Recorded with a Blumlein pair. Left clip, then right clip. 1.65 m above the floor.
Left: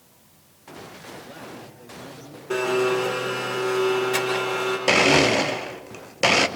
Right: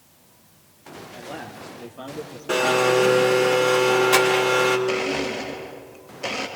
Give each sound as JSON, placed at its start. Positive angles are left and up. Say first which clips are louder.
{"t": 1.1, "sound": "a man speaking", "louder": "right 6 dB", "azimuth_deg": -40, "distance_m": 5.0}
{"t": 2.5, "sound": "a blender", "louder": "right 3 dB", "azimuth_deg": -45, "distance_m": 4.0}
{"t": 4.9, "sound": "a blender", "louder": "left 7 dB", "azimuth_deg": 40, "distance_m": 1.0}